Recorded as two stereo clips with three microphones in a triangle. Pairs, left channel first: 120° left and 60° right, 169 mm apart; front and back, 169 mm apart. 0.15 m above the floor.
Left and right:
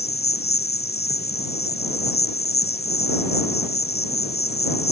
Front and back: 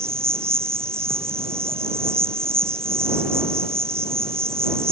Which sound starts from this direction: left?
An insect, at 0.0 s.